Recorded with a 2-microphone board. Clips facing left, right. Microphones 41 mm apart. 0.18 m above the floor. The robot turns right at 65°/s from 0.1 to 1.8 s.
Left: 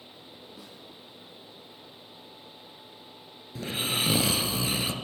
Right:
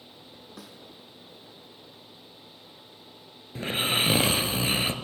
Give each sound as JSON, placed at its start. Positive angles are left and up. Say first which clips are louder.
{"t": 0.6, "sound": "a snare drum", "louder": "right 1 dB", "side_deg": -75, "distance_m": 2.0}
{"t": 3.5, "sound": "snoring", "louder": "right 4 dB", "side_deg": -35, "distance_m": 0.8}